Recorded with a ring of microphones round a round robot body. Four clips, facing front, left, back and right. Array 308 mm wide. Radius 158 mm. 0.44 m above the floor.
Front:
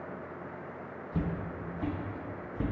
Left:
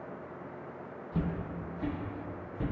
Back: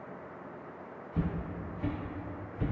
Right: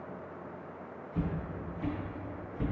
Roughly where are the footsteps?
Ahead left.